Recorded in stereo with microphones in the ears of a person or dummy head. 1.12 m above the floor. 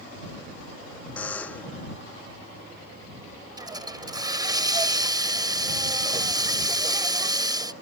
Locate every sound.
1.2 s a buzzer: 10° left (ahead or behind)
3.6 s a hiss: 25° right (ahead or behind)